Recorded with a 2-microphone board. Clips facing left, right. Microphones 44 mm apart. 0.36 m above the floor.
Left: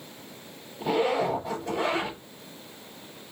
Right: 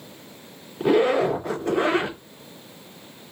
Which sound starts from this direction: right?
A zipper, at 0.8 s.